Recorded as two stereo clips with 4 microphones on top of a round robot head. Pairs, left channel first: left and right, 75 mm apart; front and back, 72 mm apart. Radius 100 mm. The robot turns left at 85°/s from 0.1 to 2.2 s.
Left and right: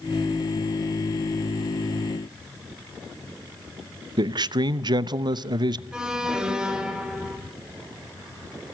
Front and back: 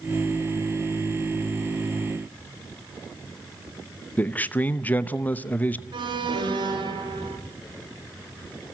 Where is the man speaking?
70° right, 0.9 m.